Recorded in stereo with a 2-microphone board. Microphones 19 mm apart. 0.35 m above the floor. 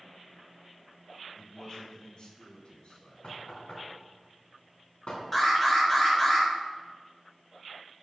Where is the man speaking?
25° left (ahead or behind), 1.9 m; by 3.1 s 55° left (ahead or behind), 3.5 m.